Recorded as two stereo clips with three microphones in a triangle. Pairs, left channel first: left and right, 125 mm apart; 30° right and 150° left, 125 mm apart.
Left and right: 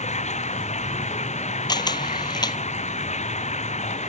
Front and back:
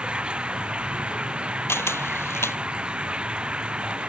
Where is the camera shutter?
40° left.